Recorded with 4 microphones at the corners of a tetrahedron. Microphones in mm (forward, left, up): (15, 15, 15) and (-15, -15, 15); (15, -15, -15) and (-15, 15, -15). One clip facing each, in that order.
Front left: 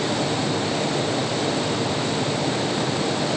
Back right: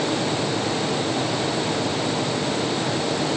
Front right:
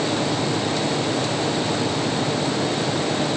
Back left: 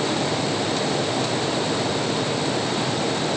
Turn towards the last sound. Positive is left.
No sound to turn to.